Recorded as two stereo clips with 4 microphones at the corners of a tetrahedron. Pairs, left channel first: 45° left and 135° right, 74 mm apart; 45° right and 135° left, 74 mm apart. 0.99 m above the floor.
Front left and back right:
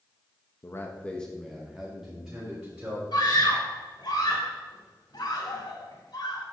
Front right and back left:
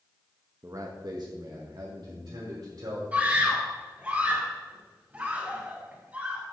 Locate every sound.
0.6 s a man speaking: 90° left, 1.0 m; by 3.0 s 150° left, 3.5 m
3.1 s a scream: 70° left, 3 m